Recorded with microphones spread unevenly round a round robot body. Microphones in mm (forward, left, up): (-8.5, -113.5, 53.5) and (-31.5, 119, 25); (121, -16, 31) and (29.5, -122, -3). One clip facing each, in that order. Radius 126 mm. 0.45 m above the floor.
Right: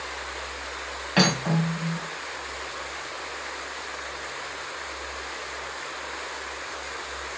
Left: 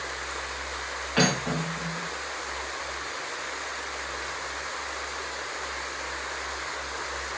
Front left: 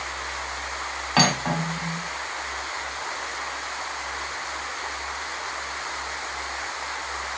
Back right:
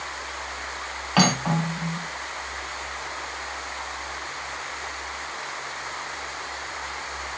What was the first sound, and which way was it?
Cutlery clinking, 50° right.